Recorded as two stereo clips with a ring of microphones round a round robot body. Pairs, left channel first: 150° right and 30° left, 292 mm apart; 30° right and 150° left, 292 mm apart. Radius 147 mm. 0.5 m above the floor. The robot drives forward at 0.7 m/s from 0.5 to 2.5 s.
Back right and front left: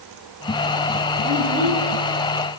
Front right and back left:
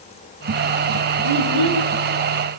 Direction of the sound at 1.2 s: 90° left.